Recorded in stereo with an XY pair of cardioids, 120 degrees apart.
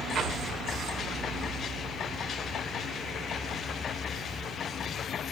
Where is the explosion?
45° right, 2.5 m.